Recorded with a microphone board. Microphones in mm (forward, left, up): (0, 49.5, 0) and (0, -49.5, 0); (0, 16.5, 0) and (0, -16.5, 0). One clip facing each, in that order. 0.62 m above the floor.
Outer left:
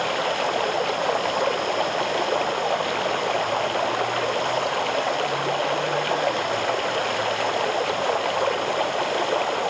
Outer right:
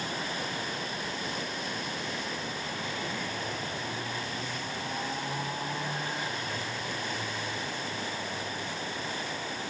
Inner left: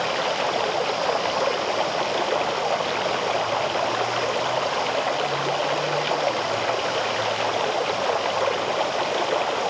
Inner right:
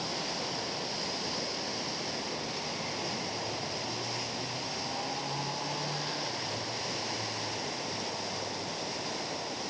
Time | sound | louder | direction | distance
0.0 | running water | outer left 12 dB, inner left 12 dB | 80° left | ?